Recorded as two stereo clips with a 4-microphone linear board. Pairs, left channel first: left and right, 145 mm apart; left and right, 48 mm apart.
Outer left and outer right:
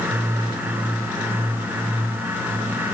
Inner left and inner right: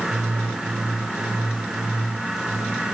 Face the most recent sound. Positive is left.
No sound to turn to.